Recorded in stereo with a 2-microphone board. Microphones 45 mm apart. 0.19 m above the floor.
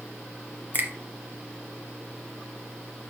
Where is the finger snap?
40° right (ahead or behind), 1.1 m.